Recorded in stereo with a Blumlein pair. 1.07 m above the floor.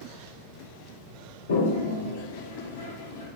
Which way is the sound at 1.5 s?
65° left.